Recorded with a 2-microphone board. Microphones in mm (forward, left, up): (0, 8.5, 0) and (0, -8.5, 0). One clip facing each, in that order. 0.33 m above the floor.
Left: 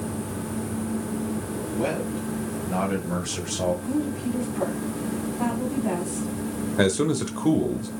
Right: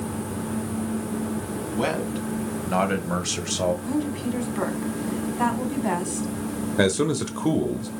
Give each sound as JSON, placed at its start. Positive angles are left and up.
{"t": 1.8, "sound": "a man speaking", "side_deg": -55, "distance_m": 3.0}
{"t": 3.9, "sound": "a woman speaking", "side_deg": -50, "distance_m": 2.5}
{"t": 6.8, "sound": "a man speaking", "side_deg": -10, "distance_m": 0.8}